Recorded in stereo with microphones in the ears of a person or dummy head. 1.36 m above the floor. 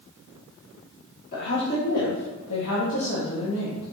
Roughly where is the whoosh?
No whoosh in this recording.